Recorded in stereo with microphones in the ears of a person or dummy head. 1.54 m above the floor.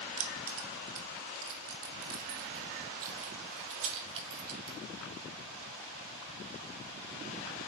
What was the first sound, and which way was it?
Keys jangling, 55° right (ahead or behind).